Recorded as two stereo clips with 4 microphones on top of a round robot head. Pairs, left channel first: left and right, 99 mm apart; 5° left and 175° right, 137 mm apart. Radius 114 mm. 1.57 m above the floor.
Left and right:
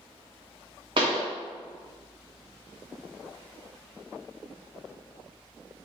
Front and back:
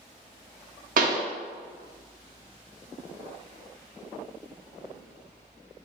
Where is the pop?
140° right, 0.6 m.